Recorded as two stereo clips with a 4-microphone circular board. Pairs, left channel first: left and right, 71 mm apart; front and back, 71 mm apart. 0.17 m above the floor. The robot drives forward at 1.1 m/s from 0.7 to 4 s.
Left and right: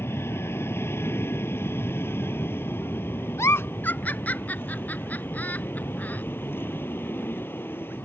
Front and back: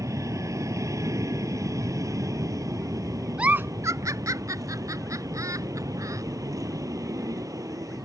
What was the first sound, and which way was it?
An aircraft, 140° left.